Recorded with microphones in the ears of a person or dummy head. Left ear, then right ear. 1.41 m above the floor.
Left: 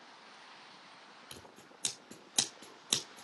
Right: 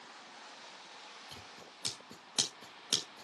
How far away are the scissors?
About 2.5 m.